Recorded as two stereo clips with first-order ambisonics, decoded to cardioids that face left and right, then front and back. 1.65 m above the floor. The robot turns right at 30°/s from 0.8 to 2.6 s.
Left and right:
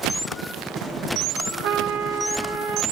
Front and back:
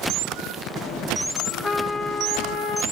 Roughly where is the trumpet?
Right.